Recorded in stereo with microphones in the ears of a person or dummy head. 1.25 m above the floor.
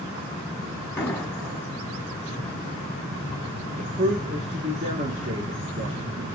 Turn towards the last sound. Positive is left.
turn(degrees=-40)  # may be behind; listen again after turning